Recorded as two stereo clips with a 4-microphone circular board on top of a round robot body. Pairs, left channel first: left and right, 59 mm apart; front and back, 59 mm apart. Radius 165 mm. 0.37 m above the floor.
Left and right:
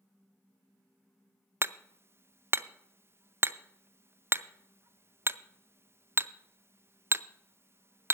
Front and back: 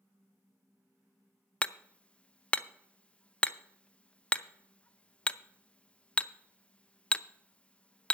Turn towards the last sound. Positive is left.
turn(degrees=-65)